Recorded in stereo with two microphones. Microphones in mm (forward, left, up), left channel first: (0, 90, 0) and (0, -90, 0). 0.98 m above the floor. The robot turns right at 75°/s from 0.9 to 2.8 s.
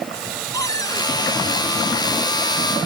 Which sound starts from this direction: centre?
A cupboard door, at 0.5 s.